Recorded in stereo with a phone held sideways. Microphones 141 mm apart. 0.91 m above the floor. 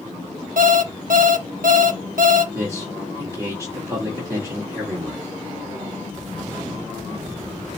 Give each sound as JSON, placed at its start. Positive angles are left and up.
{"t": 0.6, "sound": "an alarm clock", "side_deg": -75, "distance_m": 0.8}
{"t": 2.5, "sound": "a man speaking", "side_deg": -20, "distance_m": 1.8}